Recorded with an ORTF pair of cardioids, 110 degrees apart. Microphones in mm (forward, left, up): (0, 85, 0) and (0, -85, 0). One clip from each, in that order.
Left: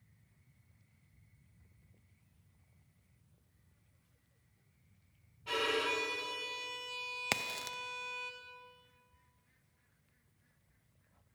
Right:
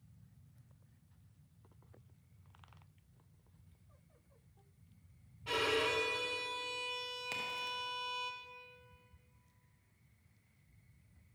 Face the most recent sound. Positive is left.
turn(degrees=65)